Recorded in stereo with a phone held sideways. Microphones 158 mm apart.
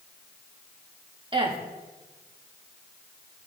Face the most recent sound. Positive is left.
turn(degrees=-30)  # may be behind; listen again after turning